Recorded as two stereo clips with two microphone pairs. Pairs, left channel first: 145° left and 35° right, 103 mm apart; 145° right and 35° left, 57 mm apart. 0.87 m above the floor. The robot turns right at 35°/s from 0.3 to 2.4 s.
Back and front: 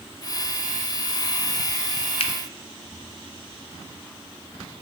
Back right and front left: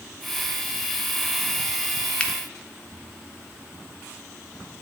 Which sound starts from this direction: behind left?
A finger snap, at 2.2 s.